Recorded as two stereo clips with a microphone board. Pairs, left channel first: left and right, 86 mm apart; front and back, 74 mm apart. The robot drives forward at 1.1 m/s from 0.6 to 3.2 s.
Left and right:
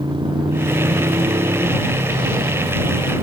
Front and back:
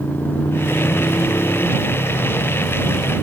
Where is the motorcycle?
65° right.